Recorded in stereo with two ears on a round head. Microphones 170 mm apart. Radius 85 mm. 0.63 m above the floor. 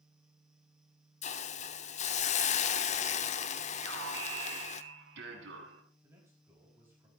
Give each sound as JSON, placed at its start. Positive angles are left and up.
{"t": 1.2, "sound": "a hiss", "side_deg": 35, "distance_m": 0.8}
{"t": 3.8, "sound": "an alarm", "side_deg": -65, "distance_m": 3.5}
{"t": 6.0, "sound": "a man speaking", "side_deg": -15, "distance_m": 4.5}